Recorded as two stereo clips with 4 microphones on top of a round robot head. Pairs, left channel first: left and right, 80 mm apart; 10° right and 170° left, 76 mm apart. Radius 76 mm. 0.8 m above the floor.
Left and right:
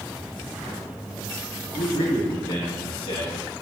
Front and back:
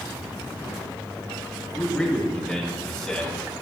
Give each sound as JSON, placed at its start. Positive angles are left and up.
{"t": 1.7, "sound": "a man speaking", "azimuth_deg": 70, "distance_m": 6.5}